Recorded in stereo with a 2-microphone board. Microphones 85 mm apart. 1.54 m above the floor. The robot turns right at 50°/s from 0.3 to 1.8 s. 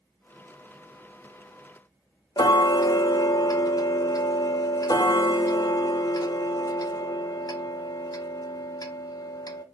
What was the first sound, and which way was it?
Ticking, 50° left (ahead or behind).